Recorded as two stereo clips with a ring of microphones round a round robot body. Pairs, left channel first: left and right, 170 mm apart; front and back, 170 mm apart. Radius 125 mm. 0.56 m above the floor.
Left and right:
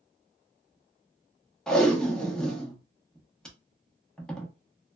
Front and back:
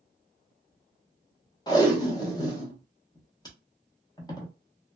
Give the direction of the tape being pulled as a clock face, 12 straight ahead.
12 o'clock.